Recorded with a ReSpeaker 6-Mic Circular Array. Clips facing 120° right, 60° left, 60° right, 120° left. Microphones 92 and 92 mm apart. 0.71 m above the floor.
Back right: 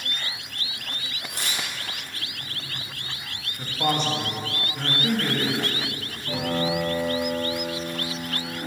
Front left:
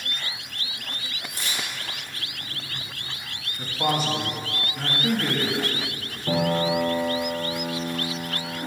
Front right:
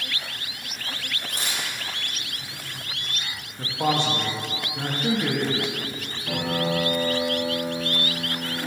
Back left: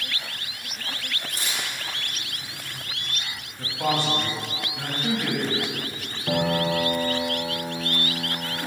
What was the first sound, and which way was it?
Tearing paper, 95° right.